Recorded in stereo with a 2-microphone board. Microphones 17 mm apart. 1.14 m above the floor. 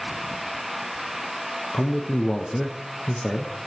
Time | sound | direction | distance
1.7 | a man speaking | 45° left (ahead or behind) | 0.5 m